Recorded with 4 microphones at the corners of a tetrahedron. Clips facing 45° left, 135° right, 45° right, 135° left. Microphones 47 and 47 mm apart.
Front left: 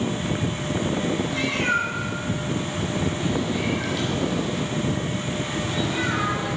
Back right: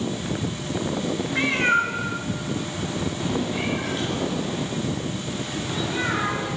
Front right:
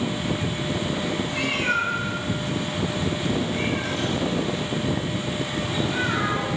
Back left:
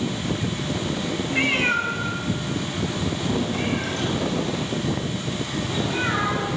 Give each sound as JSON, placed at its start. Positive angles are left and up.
{"t": 1.3, "sound": "a cat meowing", "azimuth_deg": 180, "distance_m": 0.8}